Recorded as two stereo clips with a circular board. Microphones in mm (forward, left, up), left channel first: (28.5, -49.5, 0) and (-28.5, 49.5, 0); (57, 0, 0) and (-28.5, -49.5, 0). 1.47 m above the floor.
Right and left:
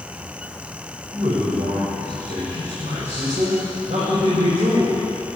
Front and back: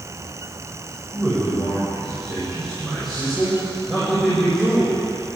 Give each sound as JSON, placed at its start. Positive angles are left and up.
{"t": 1.1, "sound": "a man speaking", "azimuth_deg": 120, "distance_m": 7.5}